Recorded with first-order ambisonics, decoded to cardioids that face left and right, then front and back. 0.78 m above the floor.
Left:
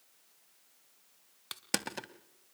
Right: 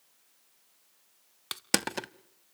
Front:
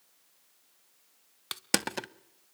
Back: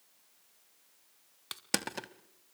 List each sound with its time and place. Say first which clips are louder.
1.5 s crushing: right 6 dB, front 5 dB; 55° right, 0.6 m